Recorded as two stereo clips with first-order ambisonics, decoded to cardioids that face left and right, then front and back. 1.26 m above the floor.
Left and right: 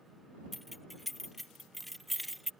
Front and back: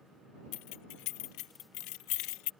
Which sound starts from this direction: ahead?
Keys jangling, at 0.5 s.